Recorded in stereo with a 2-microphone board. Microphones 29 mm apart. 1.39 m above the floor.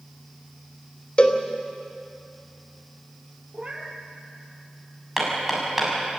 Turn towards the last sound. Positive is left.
turn(degrees=-10)  # may be behind; listen again after turning